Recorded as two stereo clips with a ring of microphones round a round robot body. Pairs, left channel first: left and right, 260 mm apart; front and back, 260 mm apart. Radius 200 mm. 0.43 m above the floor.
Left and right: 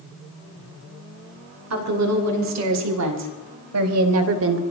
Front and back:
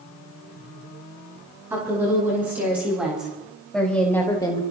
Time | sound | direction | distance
1.7 | a woman speaking | 100° right | 5.5 m